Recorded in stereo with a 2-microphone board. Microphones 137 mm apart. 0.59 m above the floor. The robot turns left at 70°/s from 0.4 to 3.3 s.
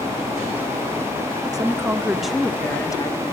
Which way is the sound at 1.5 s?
130° right.